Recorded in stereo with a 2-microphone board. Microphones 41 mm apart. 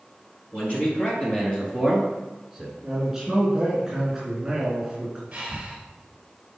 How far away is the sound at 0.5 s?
About 3 m.